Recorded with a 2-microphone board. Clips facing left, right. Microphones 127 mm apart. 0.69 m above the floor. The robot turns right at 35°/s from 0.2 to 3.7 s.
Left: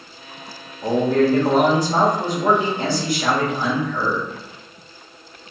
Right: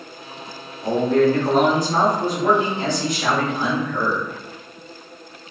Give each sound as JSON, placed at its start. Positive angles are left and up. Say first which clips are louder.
{"t": 0.8, "sound": "a man speaking", "louder": "even", "azimuth_deg": 95, "distance_m": 0.9}